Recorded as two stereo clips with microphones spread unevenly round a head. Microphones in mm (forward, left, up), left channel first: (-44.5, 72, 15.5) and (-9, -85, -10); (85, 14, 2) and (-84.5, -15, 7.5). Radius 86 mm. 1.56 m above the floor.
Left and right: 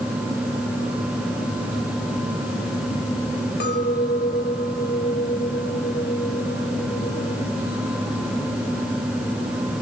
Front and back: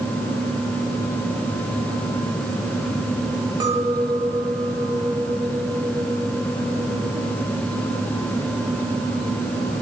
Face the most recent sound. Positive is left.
turn(degrees=120)